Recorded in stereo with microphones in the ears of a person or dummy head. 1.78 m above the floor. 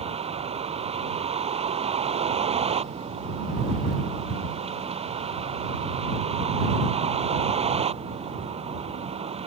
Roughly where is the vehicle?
Right.